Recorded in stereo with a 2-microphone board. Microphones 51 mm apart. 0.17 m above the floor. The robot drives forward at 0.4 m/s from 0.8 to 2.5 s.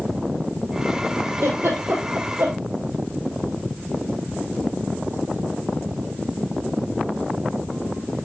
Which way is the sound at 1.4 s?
70° right (ahead or behind).